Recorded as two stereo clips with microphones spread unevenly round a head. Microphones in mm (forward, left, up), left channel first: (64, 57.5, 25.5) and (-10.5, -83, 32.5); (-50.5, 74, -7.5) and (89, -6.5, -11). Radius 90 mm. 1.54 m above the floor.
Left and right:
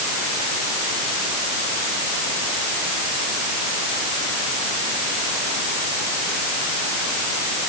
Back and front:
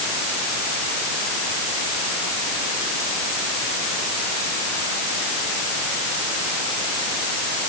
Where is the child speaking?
No child speaking in this recording.